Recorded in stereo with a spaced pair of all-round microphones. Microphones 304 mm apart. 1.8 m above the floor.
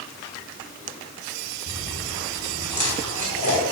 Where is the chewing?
70° left (ahead or behind), 4 m.